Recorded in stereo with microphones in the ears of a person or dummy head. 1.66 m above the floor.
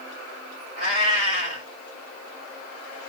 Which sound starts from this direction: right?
A cat meowing, at 0.8 s.